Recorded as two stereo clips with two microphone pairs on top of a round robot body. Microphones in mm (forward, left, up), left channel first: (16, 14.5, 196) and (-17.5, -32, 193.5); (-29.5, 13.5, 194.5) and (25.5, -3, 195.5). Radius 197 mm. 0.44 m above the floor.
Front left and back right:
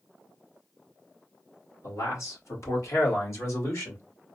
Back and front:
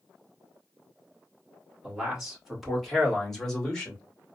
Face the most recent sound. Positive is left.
turn(degrees=90)